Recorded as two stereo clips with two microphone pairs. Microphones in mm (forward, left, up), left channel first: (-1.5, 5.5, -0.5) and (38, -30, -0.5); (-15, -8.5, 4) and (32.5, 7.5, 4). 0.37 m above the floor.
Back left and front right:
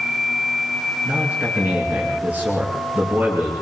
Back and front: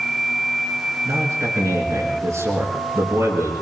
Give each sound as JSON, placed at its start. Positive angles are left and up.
{"t": 1.1, "sound": "a man speaking", "azimuth_deg": 15, "distance_m": 9.0}